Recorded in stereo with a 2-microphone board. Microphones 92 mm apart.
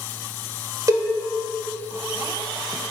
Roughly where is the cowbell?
Right.